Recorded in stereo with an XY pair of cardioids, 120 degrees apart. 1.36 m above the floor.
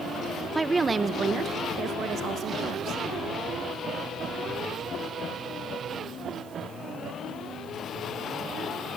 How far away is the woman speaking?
About 0.7 m.